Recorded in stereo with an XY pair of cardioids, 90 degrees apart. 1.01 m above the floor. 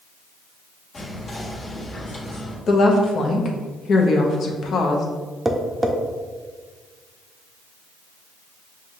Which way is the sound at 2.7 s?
60° left.